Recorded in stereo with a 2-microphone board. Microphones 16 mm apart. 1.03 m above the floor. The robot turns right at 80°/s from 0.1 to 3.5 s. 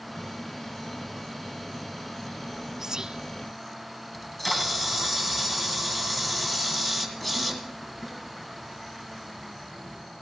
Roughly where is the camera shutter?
Centre.